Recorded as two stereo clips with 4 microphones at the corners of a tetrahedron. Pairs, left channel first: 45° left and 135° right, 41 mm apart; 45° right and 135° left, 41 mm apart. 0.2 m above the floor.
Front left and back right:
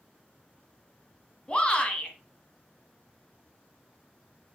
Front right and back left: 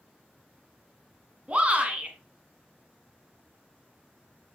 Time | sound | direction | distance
1.5 | a shout | 95° left | 1.3 m